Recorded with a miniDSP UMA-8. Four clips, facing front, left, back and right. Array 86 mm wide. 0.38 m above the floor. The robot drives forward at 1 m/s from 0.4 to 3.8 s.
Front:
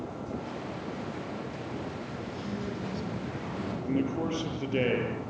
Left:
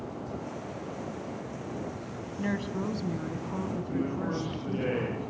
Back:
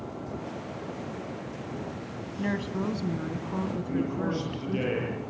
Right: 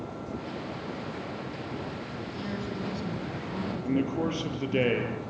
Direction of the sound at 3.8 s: 70° right.